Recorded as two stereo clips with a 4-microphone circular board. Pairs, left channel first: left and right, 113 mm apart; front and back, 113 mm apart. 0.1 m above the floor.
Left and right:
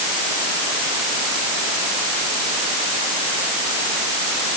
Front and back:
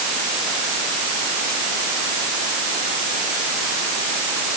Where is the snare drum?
I don't hear a snare drum.